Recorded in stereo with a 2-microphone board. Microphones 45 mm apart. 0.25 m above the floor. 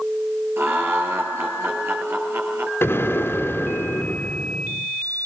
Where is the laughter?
60° right (ahead or behind), 4.5 m.